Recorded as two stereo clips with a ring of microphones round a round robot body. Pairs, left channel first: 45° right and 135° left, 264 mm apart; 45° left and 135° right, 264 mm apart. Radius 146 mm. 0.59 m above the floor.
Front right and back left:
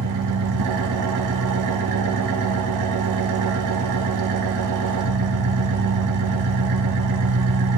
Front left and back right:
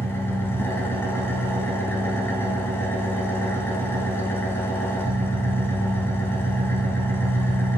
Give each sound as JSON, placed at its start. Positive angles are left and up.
{"t": 0.0, "sound": "an engine running", "azimuth_deg": 125, "distance_m": 1.1}